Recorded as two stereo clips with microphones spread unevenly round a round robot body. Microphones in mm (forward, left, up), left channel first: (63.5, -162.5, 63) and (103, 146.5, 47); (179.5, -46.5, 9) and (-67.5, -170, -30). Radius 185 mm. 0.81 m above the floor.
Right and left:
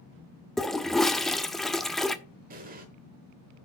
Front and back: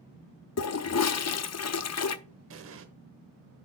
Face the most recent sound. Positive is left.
turn(degrees=150)